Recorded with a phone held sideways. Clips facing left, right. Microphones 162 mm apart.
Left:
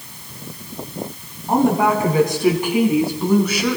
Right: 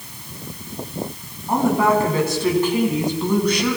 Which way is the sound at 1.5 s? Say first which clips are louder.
Left 1 dB; 20° left (ahead or behind).